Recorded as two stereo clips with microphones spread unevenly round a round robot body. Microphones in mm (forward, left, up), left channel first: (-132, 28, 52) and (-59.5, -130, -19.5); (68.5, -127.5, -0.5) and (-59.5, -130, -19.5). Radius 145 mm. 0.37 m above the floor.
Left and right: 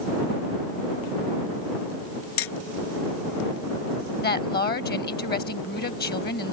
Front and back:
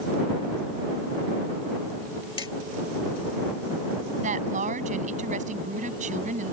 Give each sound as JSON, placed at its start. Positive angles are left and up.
{"t": 2.4, "sound": "hammering", "azimuth_deg": 75}
{"t": 4.2, "sound": "a woman speaking", "azimuth_deg": 150}